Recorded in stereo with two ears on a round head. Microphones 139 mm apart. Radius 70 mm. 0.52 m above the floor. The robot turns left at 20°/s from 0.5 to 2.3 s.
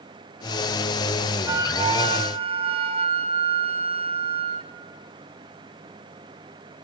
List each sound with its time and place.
1.5 s a flute: 20° right (ahead or behind), 1.5 m; by 4.7 s 35° right (ahead or behind), 1.5 m